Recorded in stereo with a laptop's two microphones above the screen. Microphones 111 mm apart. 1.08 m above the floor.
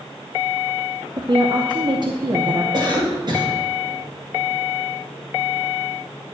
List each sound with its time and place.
1.2 s a woman speaking: 45° right (ahead or behind), 0.8 m
2.7 s a cough: 45° right (ahead or behind), 1.6 m